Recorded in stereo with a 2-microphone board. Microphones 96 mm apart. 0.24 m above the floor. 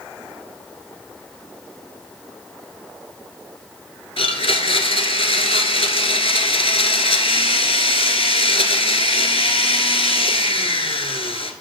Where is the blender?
85° left, 0.8 m.